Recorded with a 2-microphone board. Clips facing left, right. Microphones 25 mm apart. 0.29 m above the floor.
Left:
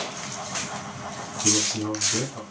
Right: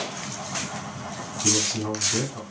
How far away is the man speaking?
About 1.1 m.